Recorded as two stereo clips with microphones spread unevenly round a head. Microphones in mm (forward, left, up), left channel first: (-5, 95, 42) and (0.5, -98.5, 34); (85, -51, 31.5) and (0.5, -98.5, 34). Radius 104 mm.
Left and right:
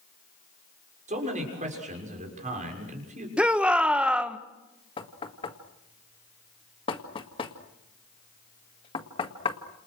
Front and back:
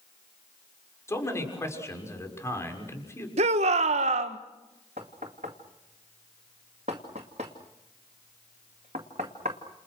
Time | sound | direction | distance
1.1 | a man speaking | 35° right | 6.5 m
3.4 | a shout | 175° right | 1.4 m
5.0 | knocking | 155° left | 2.0 m